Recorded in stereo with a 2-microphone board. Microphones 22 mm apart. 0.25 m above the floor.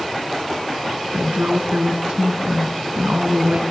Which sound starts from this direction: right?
A woman speaking, at 1.1 s.